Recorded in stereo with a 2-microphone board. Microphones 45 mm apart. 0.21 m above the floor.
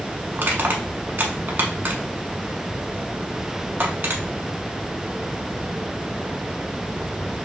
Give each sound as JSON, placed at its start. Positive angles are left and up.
{"t": 0.3, "sound": "crushing", "side_deg": -50, "distance_m": 0.8}